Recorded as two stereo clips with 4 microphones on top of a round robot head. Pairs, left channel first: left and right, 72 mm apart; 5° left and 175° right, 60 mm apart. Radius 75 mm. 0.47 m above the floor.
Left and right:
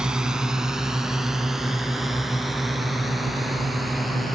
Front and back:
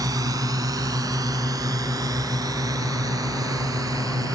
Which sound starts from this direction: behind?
A drone, at 0.0 s.